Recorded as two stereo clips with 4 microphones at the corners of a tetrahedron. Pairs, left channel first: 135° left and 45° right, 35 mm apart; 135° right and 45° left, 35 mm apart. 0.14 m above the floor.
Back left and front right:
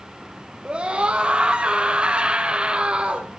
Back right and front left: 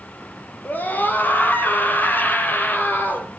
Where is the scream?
110° right, 4.5 m.